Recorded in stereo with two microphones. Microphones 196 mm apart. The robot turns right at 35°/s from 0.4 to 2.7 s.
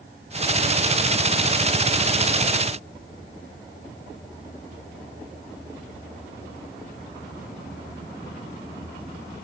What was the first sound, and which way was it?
Only background noise.